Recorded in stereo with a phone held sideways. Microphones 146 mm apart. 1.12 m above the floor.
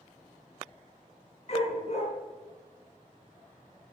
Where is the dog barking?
45° left (ahead or behind), 6 m.